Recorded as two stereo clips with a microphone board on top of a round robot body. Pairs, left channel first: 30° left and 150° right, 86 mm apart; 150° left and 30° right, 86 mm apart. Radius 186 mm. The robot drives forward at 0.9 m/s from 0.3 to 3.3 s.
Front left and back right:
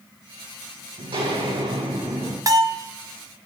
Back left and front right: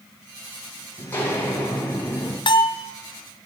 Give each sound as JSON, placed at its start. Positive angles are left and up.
{"t": 1.0, "sound": "footsteps", "azimuth_deg": -140, "distance_m": 3.0}
{"t": 2.5, "sound": "a bell", "azimuth_deg": 165, "distance_m": 0.8}